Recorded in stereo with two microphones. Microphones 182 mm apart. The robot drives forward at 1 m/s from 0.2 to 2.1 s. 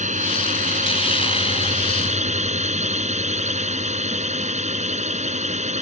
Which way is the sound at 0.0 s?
40° right (ahead or behind).